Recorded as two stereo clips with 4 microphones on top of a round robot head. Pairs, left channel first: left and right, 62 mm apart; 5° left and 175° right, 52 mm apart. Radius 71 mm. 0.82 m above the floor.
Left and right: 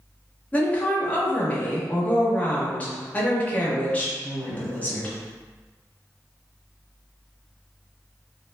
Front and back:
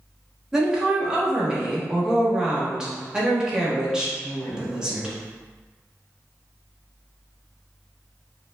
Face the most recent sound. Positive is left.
turn(degrees=125)